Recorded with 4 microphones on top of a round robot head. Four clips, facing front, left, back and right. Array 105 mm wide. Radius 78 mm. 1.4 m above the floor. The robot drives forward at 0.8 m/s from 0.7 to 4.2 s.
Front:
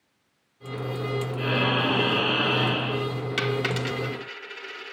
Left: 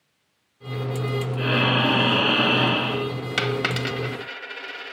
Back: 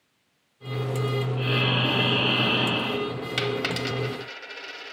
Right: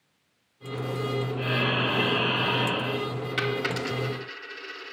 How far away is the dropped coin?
About 2 m.